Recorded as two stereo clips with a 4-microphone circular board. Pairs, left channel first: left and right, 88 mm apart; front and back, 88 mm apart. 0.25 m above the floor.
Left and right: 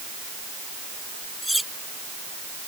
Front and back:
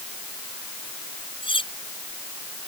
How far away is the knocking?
No knocking in this recording.